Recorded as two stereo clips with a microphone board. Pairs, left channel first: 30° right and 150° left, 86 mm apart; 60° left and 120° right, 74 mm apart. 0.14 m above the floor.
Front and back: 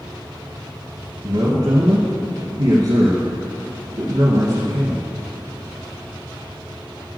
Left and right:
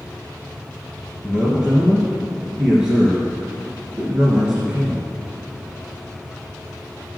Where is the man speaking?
165° left, 2 m.